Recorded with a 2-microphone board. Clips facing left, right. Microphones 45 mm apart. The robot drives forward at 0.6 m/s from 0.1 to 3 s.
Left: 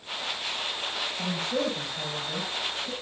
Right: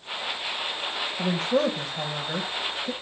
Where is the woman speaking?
35° right (ahead or behind), 1.6 m; by 2.9 s 30° right (ahead or behind), 1.6 m.